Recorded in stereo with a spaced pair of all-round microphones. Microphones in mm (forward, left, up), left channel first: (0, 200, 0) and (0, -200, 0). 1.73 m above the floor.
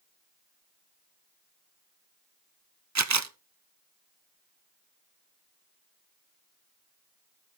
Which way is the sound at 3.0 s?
45° right (ahead or behind).